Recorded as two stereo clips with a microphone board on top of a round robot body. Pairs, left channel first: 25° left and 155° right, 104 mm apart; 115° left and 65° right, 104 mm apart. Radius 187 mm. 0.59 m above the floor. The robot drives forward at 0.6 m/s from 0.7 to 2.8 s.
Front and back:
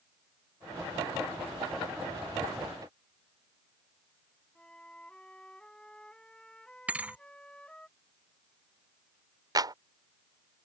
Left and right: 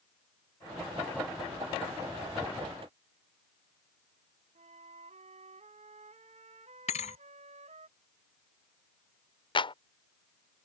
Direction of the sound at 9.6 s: 150° left.